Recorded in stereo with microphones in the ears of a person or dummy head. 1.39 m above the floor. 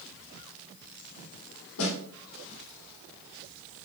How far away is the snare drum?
About 2.5 m.